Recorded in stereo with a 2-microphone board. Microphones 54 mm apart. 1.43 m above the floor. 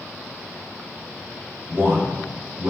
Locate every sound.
1.7 s a man speaking: 60° right (ahead or behind), 1.4 m